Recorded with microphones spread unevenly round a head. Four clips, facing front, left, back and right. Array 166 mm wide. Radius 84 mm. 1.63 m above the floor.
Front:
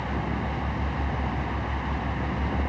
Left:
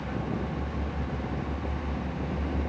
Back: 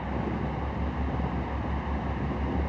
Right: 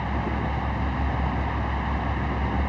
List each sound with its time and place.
0.0 s a fan: 60° right